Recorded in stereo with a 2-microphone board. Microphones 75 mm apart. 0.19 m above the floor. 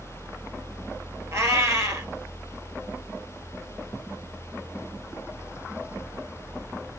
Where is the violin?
No violin in this recording.